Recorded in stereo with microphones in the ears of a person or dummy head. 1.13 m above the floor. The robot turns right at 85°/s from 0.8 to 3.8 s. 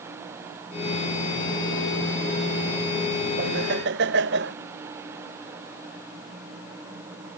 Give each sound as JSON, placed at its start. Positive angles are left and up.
{"t": 3.4, "sound": "laughter", "azimuth_deg": -120}